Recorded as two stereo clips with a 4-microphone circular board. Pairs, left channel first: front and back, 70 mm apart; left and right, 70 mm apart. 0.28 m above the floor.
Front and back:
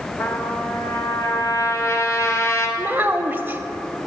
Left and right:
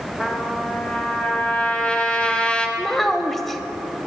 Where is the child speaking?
175° left, 0.6 m.